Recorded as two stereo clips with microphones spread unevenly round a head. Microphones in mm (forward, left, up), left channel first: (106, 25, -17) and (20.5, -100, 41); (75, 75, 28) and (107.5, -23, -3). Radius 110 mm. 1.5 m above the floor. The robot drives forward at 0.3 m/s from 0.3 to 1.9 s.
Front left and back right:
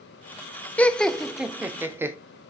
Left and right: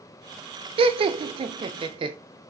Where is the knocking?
No knocking in this recording.